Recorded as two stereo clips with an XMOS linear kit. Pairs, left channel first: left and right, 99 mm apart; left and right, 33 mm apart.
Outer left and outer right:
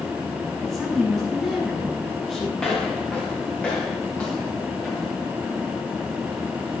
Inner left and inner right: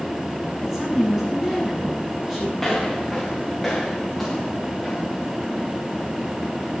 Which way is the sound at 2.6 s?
10° left (ahead or behind).